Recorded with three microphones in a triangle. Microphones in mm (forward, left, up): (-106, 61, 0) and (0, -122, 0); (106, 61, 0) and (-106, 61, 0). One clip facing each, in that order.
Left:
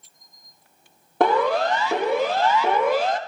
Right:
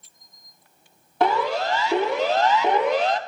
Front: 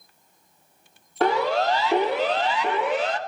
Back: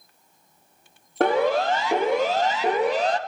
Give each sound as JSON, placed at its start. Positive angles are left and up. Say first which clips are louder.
{"t": 1.2, "sound": "a siren", "louder": "left 3 dB, back 2 dB", "azimuth_deg": 150, "distance_m": 4.0}